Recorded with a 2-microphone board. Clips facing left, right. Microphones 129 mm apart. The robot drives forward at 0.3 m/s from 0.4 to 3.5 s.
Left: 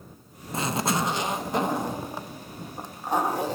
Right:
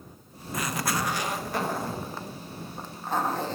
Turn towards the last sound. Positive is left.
turn(degrees=15)  # may be behind; listen again after turning